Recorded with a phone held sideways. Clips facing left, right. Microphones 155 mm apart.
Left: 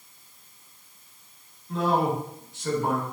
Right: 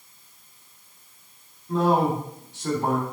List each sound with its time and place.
1.7 s a man speaking: 65° right (ahead or behind), 3 m